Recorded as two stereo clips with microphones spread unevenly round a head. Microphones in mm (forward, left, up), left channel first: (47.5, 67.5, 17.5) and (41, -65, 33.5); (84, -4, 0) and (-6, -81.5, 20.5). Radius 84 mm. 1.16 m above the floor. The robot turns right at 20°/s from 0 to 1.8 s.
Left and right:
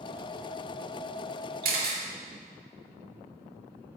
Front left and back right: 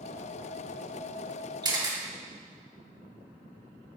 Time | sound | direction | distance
1.6 | a camera shutter | 85° right | 2.5 m